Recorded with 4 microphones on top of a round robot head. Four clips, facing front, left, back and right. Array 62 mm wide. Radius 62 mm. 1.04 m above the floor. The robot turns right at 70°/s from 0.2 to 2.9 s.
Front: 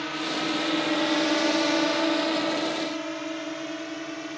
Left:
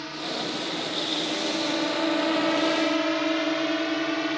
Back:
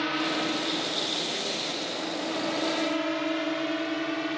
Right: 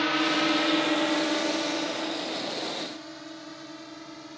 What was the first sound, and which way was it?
A drone, 110° right.